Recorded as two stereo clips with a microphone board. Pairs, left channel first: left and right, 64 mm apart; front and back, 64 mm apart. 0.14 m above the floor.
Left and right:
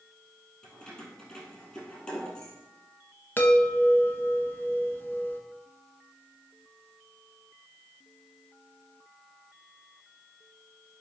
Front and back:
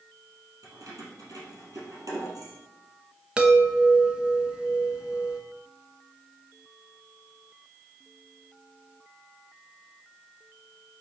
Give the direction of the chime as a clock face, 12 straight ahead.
8 o'clock.